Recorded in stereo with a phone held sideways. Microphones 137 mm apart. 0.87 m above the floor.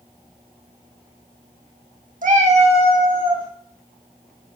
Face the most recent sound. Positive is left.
turn(degrees=-35)  # may be behind; listen again after turning